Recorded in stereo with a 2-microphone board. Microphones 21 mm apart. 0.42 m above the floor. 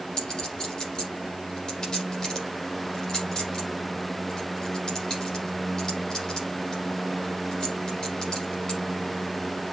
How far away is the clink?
About 8.5 m.